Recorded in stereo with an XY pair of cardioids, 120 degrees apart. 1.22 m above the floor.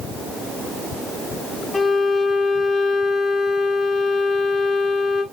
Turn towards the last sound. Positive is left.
turn(degrees=25)